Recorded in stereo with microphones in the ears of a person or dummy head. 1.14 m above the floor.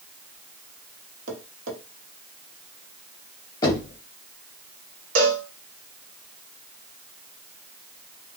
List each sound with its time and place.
1.3 s tapping: 45° right (ahead or behind), 1.1 m
3.6 s knocking: 20° left (ahead or behind), 1.5 m
5.2 s a cowbell: 60° right (ahead or behind), 0.8 m